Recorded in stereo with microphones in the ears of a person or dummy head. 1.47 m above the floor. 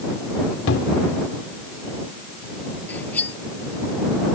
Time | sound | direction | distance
0.7 | a cupboard door | 65° left (ahead or behind) | ?
2.9 | cutlery clinking | 10° left (ahead or behind) | ?